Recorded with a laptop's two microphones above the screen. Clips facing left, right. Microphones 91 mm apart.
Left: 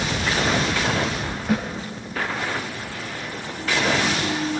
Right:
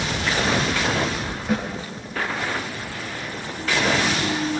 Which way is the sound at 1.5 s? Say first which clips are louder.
Left 1 dB; centre (ahead or behind).